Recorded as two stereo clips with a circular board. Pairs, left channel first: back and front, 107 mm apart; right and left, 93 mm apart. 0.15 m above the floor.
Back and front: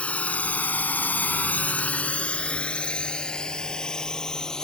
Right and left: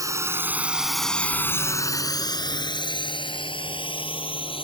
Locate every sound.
0.0 s a drone: 110° left; by 4.6 s 95° right